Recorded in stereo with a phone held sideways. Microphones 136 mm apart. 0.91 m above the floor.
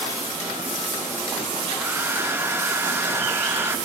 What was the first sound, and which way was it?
A hair dryer, 15° right (ahead or behind).